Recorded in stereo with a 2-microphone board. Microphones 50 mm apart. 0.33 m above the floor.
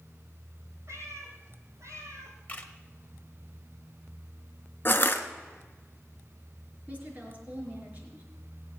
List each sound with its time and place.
0.9 s a cat meowing: 65° right (ahead or behind), 3.5 m
2.5 s a camera shutter: 30° left (ahead or behind), 1.5 m
4.8 s crushing: 45° left (ahead or behind), 1.1 m
6.9 s a woman speaking: 30° right (ahead or behind), 4.5 m